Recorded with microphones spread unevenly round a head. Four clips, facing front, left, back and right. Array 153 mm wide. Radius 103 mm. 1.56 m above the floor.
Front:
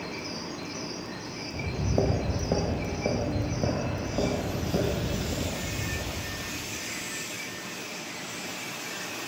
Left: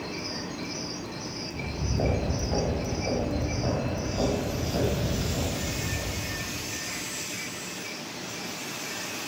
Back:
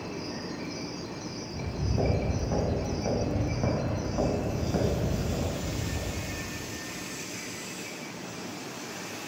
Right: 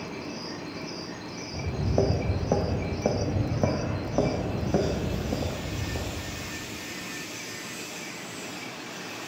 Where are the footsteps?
50° right, 2.0 m; by 6.5 s 100° right, 4 m.